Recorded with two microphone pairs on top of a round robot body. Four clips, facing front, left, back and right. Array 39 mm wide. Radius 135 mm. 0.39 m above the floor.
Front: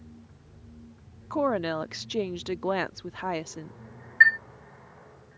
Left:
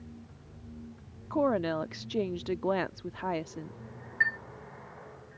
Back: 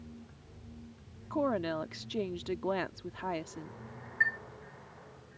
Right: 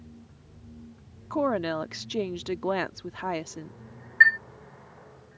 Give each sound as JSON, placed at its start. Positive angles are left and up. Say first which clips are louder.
{"t": 1.3, "sound": "a woman speaking", "louder": "right 1 dB, front 5 dB", "azimuth_deg": -55}
{"t": 4.2, "sound": "a chime", "louder": "right 10 dB, front 12 dB", "azimuth_deg": -50}